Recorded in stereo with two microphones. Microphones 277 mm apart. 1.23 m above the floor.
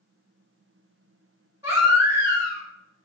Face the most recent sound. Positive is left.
turn(degrees=-10)  # may be behind; listen again after turning